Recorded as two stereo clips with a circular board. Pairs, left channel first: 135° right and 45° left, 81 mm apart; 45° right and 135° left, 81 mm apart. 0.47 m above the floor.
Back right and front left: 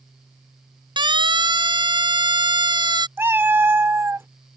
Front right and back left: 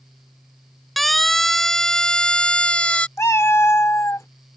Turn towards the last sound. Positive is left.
turn(degrees=-5)